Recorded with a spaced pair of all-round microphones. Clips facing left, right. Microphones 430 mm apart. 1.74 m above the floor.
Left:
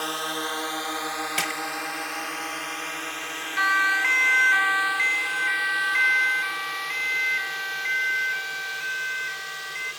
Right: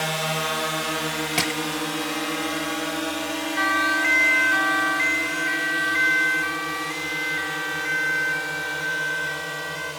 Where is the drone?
80° right.